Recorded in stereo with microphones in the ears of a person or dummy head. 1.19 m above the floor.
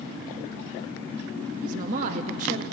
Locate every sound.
1.6 s a woman speaking: 40° right (ahead or behind), 0.5 m